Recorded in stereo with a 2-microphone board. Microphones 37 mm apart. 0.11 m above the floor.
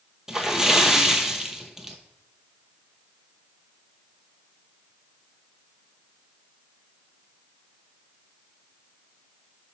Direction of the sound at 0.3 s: 15° right (ahead or behind).